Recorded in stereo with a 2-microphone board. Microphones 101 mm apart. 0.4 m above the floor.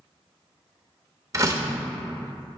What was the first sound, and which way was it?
A door slam, 35° right (ahead or behind).